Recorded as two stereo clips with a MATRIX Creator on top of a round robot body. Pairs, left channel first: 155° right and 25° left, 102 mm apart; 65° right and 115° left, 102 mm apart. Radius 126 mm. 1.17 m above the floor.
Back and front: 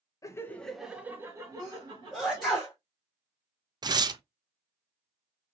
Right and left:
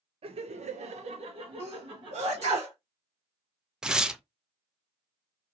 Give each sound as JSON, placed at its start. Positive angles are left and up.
{"t": 0.2, "sound": "laughter", "azimuth_deg": 145, "distance_m": 0.6}
{"t": 1.6, "sound": "a sneeze", "azimuth_deg": 115, "distance_m": 1.0}
{"t": 3.8, "sound": "tearing paper", "azimuth_deg": 30, "distance_m": 0.5}